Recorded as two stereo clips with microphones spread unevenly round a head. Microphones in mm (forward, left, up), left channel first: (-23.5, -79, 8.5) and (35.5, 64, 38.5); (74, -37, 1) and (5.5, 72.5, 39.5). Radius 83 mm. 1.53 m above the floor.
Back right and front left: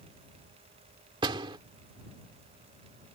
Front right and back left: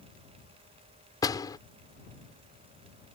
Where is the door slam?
10° left.